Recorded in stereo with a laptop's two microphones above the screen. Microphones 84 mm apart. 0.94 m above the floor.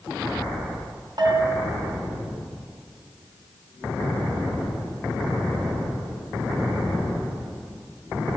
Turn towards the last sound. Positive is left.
turn(degrees=-50)  # may be behind; listen again after turning